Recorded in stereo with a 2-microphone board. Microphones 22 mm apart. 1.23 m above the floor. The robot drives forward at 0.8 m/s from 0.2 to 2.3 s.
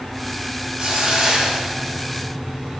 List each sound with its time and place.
0.8 s a hiss: 55° right (ahead or behind), 3.5 m; by 2.2 s 40° right (ahead or behind), 4.5 m